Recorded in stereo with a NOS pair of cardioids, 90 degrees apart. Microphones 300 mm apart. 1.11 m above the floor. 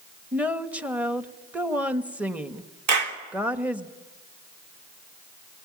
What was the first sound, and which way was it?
A woman speaking, 5° right.